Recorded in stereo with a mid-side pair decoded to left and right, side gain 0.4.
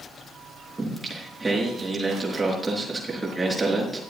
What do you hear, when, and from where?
0.8 s singing: 25° right, 5 m